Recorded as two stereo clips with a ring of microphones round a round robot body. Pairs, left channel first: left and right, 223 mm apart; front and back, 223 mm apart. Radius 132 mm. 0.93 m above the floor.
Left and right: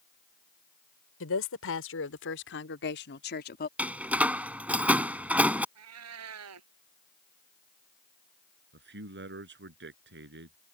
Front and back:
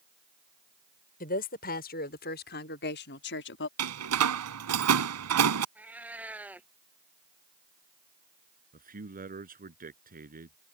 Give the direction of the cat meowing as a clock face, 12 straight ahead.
3 o'clock.